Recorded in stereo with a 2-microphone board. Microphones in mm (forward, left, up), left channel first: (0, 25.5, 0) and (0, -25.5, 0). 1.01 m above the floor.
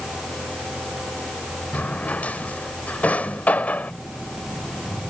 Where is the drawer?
30° left (ahead or behind).